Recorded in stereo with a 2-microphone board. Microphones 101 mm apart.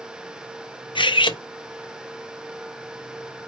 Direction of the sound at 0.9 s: 55° left (ahead or behind).